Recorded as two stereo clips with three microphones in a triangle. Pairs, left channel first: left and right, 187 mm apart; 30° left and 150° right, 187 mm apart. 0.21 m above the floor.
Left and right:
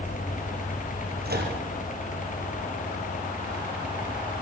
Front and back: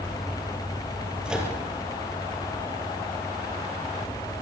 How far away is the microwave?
About 4.5 m.